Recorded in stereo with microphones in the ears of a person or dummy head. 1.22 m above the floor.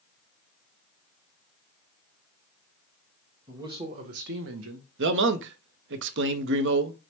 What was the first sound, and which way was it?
A man speaking, 25° right (ahead or behind).